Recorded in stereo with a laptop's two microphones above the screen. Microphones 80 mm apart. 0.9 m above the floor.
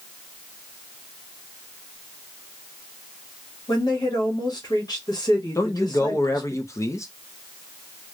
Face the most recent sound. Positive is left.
turn(degrees=40)  # may be behind; listen again after turning